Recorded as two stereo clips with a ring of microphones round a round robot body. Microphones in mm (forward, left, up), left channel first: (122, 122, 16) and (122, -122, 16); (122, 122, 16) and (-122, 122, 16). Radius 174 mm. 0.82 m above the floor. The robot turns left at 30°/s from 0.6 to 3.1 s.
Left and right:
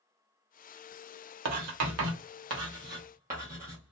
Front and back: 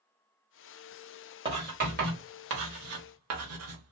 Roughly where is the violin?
I don't hear a violin.